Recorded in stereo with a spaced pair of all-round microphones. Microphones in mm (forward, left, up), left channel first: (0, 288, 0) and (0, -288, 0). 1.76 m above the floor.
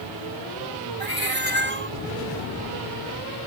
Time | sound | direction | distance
1.0 | a cat meowing | 65° right (ahead or behind) | ?